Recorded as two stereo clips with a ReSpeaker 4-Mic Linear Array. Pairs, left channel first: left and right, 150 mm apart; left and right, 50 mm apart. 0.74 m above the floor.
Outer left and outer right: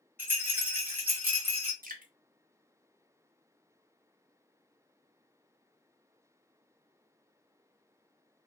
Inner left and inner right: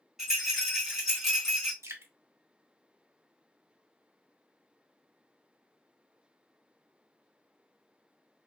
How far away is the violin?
I don't hear a violin.